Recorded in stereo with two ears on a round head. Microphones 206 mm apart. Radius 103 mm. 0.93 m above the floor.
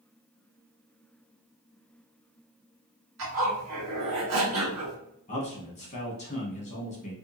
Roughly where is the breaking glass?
No breaking glass in this recording.